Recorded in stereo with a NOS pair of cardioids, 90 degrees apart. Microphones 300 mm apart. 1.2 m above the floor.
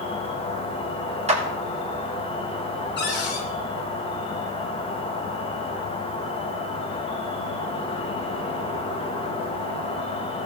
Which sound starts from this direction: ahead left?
A cupboard door, at 3.0 s.